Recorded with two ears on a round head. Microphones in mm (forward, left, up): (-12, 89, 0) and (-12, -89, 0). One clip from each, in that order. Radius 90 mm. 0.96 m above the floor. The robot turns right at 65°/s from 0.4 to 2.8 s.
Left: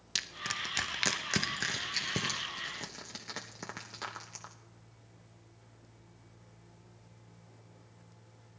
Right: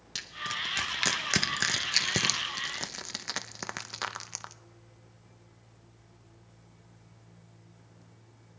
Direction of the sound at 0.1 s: 25° left (ahead or behind).